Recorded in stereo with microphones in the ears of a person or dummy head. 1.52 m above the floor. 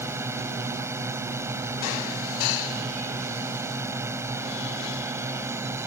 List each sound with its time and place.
0.0 s a drone: 15° right (ahead or behind)